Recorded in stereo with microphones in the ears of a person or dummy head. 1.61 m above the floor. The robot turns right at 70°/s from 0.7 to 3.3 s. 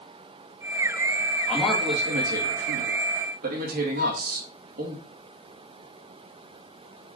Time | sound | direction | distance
1.5 | a man speaking | 170° left | 3 m
4.0 | a flute | 65° right (ahead or behind) | 3 m